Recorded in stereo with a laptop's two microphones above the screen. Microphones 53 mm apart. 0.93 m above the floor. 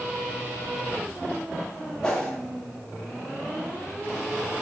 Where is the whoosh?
15° left (ahead or behind), 0.6 m.